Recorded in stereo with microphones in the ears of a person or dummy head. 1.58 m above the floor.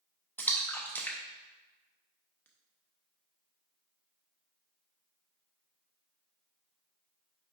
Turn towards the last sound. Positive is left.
turn(degrees=5)  # may be behind; listen again after turning